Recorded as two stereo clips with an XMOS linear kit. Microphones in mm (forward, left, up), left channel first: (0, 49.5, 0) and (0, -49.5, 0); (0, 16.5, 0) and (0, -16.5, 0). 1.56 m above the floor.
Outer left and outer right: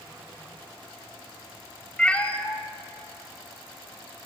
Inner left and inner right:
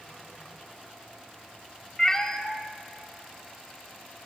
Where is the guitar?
No guitar in this recording.